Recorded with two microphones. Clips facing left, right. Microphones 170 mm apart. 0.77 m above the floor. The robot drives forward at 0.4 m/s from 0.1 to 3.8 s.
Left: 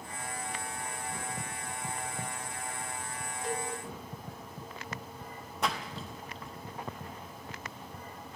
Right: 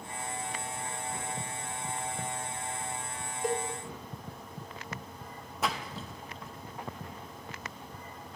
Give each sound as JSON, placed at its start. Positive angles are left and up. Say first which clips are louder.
{"t": 3.4, "sound": "a cowbell", "louder": "right 5 dB", "side_deg": -50, "distance_m": 0.8}
{"t": 5.6, "sound": "a splash", "louder": "even", "side_deg": 0, "distance_m": 0.6}